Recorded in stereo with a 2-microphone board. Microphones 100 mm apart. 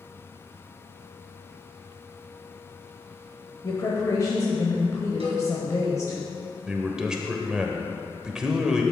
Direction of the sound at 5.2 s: 75° right (ahead or behind).